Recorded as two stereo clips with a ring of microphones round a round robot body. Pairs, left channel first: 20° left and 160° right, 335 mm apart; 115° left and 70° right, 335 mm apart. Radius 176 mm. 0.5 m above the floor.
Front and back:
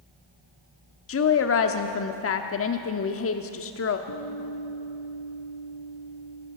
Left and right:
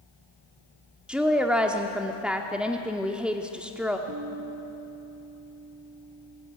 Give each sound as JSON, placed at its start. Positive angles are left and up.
{"t": 1.1, "sound": "a woman speaking", "azimuth_deg": 20, "distance_m": 0.9}
{"t": 4.1, "sound": "a guitar", "azimuth_deg": -20, "distance_m": 4.5}